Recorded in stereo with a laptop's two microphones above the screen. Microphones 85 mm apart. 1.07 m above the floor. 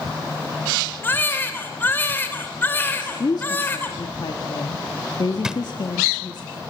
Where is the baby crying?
25° left (ahead or behind), 3 m.